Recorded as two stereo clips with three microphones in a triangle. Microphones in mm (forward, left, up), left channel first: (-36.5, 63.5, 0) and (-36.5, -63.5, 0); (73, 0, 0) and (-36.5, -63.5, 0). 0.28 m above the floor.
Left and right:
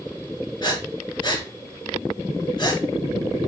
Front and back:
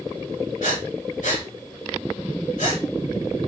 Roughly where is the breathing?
Ahead left.